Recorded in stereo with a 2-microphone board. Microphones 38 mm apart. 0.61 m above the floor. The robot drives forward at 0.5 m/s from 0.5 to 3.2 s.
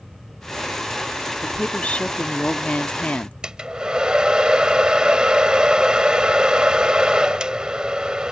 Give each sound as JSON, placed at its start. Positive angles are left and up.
{"t": 1.4, "sound": "a woman speaking", "side_deg": 35}
{"t": 3.4, "sound": "a hair dryer", "side_deg": -25}